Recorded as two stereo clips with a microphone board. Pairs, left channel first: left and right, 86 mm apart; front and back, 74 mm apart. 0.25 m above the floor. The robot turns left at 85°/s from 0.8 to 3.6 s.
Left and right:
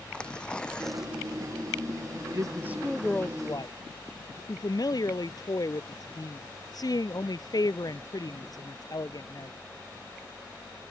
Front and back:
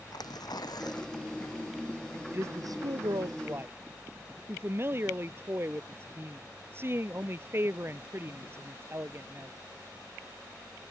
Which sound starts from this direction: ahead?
Tearing paper, at 0.1 s.